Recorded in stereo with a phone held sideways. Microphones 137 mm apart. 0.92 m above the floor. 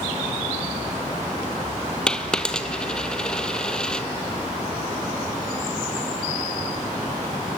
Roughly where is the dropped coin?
Centre.